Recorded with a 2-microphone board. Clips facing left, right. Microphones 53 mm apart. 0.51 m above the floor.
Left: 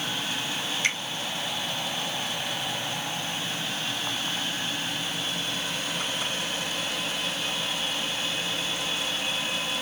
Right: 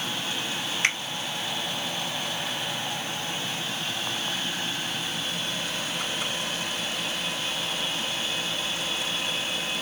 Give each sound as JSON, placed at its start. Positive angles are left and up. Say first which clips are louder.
{"t": 0.8, "sound": "a finger snap", "louder": "right 2 dB", "side_deg": -60, "distance_m": 3.0}